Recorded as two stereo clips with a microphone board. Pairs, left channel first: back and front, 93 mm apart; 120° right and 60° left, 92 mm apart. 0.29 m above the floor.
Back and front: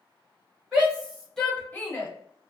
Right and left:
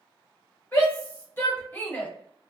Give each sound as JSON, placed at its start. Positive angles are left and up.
{"t": 0.7, "sound": "a shout", "azimuth_deg": -75, "distance_m": 1.1}